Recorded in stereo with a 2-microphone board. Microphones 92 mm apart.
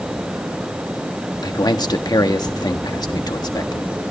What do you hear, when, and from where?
1.4 s a man speaking: 45° left (ahead or behind), 1.4 m